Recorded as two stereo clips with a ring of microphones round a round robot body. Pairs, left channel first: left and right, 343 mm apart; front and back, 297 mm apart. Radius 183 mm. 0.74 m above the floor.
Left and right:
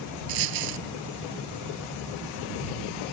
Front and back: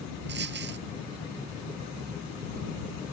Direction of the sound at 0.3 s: 115° right.